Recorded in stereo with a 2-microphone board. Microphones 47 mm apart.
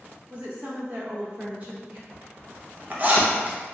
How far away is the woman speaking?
About 1.0 m.